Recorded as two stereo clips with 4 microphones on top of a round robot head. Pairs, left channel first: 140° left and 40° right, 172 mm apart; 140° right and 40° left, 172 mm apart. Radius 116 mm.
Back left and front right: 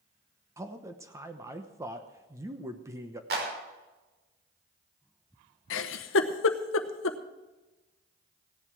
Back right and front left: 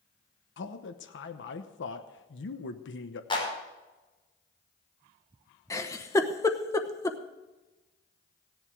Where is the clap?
75° right, 5.5 m.